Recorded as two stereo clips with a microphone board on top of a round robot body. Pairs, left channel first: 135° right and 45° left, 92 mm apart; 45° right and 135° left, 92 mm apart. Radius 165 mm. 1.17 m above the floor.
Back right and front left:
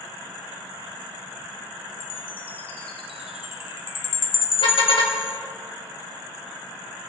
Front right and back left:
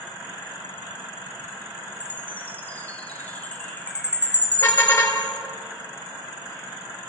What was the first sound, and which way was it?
A chime, 120° right.